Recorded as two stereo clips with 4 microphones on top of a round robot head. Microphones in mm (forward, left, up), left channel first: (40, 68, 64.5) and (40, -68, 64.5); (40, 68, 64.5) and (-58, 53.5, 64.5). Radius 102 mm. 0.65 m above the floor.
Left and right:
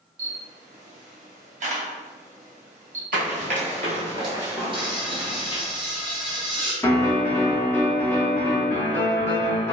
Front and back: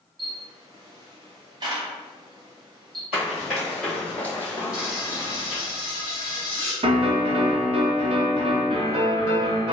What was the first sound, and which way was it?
A camera shutter, 125° right.